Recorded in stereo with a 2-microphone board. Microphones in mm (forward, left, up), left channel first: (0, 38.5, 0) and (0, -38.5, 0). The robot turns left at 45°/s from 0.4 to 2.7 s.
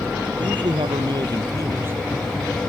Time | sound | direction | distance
0.4 | a man speaking | 80° right | ?